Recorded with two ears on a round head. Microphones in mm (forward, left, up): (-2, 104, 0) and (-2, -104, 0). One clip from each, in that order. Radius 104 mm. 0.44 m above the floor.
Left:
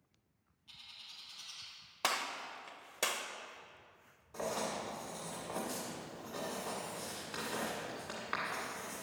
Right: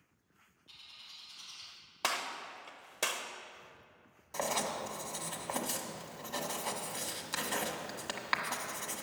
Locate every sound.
0.7 s a bird: 5° left (ahead or behind), 3 m
2.0 s a gunshot: 5° right (ahead or behind), 0.6 m
4.3 s writing: 85° right, 1.4 m